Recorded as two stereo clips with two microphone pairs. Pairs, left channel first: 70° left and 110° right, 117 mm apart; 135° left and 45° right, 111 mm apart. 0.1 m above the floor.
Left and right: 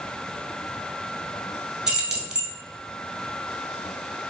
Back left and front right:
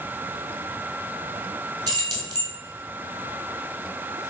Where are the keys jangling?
25° right, 1.1 m.